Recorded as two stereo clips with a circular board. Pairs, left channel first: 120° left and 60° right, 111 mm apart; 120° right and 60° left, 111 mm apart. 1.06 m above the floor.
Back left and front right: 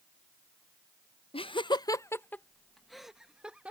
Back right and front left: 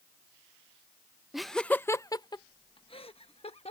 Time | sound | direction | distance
1.3 | laughter | 145° left | ?